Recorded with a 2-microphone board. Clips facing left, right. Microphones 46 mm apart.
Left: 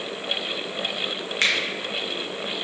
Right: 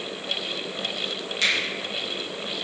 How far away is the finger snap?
About 0.6 m.